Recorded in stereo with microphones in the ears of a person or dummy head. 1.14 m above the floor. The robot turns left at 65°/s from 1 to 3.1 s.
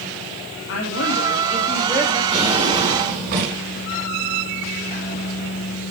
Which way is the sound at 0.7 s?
70° left.